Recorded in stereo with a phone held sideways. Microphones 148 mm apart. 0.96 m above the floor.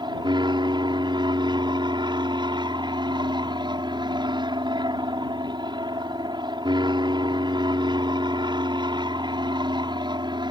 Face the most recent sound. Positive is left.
turn(degrees=-30)  # may be behind; listen again after turning